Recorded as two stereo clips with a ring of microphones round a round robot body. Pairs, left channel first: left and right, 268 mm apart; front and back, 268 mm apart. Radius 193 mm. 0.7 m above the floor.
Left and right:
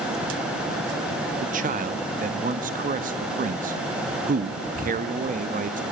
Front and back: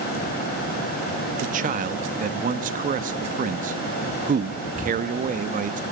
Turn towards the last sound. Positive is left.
turn(degrees=-135)